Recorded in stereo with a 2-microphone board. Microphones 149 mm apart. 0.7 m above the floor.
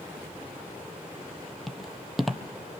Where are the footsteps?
Centre (ahead or behind), 1.2 m.